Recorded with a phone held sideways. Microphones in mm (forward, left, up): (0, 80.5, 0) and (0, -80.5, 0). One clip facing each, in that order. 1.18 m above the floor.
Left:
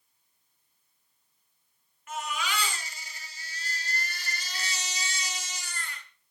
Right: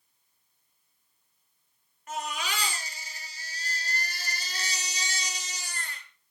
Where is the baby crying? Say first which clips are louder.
Even; 40° right (ahead or behind), 4.5 m.